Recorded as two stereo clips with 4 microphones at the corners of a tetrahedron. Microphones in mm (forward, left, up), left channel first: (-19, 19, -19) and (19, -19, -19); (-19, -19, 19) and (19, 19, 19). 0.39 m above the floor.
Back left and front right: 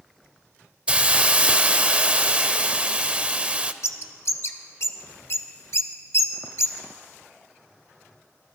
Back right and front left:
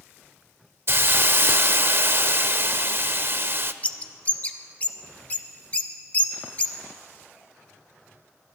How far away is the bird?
About 0.9 m.